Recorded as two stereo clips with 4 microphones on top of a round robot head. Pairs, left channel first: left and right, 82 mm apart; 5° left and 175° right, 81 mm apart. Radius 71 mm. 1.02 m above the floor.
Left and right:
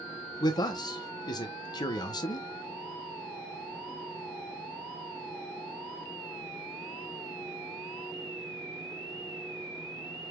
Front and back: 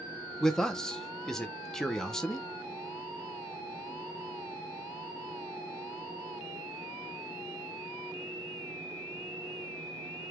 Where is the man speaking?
85° left, 0.8 m.